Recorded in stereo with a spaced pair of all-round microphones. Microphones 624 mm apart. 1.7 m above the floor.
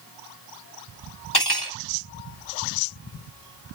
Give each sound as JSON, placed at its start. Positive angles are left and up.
{"t": 1.3, "sound": "cutlery clinking", "side_deg": 40, "distance_m": 2.0}